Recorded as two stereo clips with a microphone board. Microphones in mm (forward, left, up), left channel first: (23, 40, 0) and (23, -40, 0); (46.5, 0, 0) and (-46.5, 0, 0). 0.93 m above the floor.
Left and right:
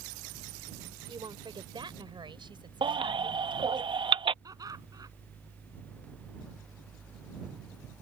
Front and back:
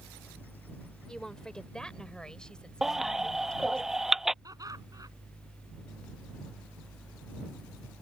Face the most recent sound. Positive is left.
turn(degrees=-130)